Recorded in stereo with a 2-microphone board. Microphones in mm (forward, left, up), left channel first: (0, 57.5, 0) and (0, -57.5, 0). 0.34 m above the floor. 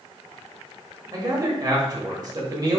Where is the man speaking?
35° right (ahead or behind), 1.1 m.